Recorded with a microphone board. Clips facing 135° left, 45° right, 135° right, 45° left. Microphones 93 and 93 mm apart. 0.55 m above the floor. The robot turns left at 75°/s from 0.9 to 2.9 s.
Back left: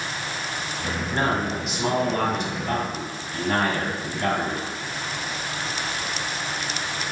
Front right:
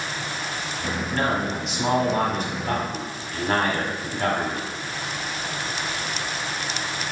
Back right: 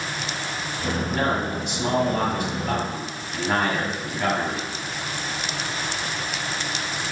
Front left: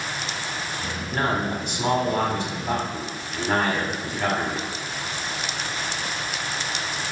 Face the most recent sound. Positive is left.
turn(degrees=-45)